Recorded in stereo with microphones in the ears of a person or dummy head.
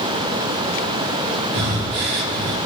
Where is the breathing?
50° right (ahead or behind), 0.6 m.